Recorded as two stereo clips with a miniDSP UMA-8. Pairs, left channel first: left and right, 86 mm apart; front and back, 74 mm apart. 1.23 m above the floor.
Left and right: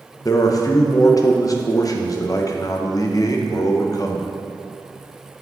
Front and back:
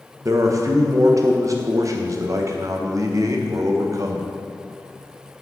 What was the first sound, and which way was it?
A man speaking, 140° left.